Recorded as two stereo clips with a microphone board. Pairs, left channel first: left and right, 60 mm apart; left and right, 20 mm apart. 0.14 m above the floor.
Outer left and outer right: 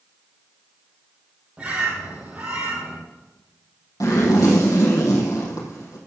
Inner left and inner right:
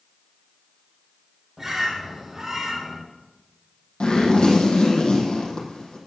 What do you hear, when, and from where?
1.6 s a bird: 20° right (ahead or behind), 3 m
4.0 s a zipper: 60° left (ahead or behind), 4.5 m